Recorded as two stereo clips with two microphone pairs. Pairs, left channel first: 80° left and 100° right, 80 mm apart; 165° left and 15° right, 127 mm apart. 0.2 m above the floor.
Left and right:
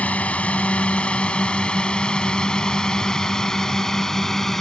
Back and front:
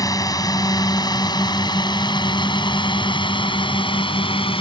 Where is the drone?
135° left; by 4.6 s 160° left.